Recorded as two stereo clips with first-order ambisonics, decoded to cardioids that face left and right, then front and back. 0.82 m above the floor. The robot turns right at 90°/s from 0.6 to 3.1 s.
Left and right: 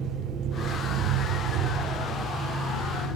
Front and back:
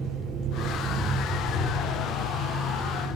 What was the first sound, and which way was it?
An engine running, 140° right.